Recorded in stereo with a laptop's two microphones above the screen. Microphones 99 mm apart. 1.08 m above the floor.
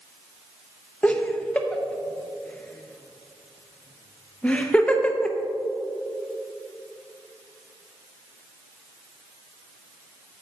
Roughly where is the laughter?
Centre.